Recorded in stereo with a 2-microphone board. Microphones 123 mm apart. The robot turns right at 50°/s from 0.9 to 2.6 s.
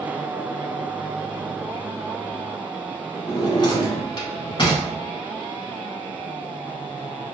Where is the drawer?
40° left (ahead or behind), 1.0 m.